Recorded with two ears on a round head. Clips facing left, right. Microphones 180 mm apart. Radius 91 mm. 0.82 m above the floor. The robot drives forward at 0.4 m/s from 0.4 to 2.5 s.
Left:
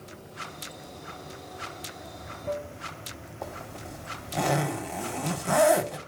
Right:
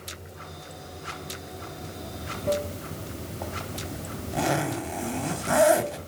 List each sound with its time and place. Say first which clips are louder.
0.0 s running water: even; 15° right (ahead or behind), 1.2 m; by 6.1 s 45° right (ahead or behind), 0.5 m
3.4 s a zipper: right 1 dB; 5° right (ahead or behind), 1.7 m